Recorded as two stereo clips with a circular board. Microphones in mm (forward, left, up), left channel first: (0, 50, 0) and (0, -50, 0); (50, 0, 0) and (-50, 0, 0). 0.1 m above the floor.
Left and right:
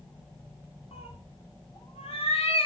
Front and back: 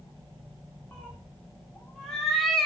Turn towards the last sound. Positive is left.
turn(degrees=90)